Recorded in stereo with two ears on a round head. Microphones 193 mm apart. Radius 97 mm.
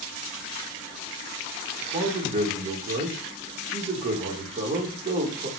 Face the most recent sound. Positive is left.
turn(degrees=-30)  # may be behind; listen again after turning